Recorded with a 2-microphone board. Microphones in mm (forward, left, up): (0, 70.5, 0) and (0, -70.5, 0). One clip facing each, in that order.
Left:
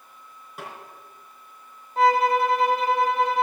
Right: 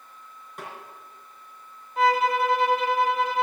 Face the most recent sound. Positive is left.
turn(degrees=35)  # may be behind; listen again after turning